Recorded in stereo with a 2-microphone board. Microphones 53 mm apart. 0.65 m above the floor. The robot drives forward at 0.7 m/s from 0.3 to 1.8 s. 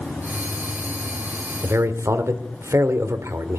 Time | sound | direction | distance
1.6 | a man speaking | 55° right (ahead or behind) | 1.8 m